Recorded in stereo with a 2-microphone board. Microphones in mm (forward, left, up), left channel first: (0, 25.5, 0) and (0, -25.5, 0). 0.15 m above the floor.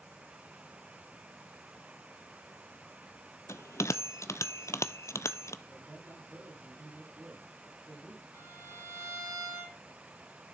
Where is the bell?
70° left (ahead or behind), 0.6 m.